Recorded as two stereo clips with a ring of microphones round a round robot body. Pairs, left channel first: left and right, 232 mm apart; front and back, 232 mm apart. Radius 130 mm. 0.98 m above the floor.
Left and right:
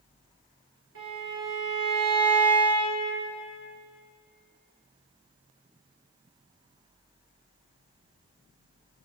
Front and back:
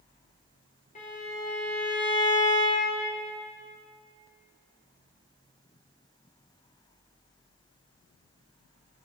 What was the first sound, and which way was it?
A violin, 55° right.